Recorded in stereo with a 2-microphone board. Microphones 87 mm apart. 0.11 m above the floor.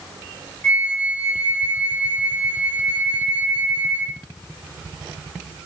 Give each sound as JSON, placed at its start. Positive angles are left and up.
{"t": 0.6, "sound": "a flute", "side_deg": 15, "distance_m": 1.2}